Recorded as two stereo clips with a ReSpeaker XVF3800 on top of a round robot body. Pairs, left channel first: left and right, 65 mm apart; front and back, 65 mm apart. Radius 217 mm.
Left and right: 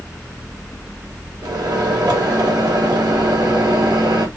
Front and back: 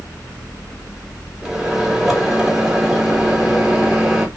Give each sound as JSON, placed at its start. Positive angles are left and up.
{"t": 1.4, "sound": "a microwave", "azimuth_deg": -95, "distance_m": 1.1}